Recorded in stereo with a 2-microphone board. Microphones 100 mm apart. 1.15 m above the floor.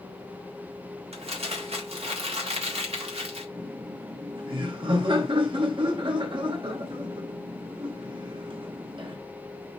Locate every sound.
1.1 s crumpling: 80° right, 1.6 m
3.5 s laughter: 55° right (ahead or behind), 1.5 m